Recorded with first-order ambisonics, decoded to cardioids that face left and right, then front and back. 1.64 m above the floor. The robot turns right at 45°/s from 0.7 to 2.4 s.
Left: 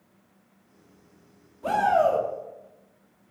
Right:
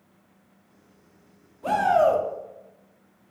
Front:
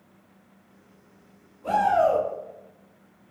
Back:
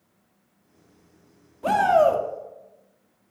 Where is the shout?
Straight behind, 0.5 m; by 2.2 s 155° right, 0.5 m.